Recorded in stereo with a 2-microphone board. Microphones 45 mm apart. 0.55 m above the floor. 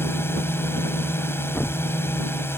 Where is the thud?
45° left (ahead or behind).